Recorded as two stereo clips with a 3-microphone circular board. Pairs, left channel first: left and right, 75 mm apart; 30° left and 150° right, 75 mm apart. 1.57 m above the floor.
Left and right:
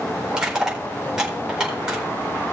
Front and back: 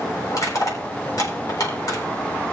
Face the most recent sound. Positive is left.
turn(degrees=-10)